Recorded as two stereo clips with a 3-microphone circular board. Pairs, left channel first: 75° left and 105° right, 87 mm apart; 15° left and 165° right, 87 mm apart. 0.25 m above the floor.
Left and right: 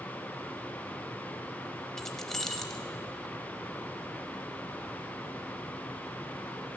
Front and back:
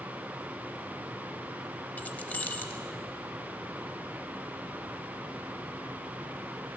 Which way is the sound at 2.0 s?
Straight ahead.